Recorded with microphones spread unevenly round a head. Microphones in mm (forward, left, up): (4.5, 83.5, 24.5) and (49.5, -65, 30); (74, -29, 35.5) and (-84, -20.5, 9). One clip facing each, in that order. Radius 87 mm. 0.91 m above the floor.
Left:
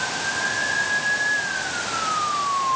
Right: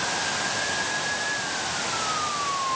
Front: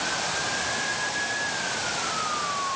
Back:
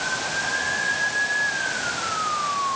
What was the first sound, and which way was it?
Only background noise.